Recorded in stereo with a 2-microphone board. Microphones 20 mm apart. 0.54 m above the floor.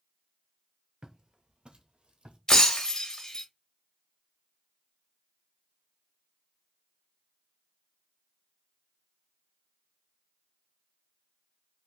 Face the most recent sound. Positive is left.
turn(degrees=40)  # may be behind; listen again after turning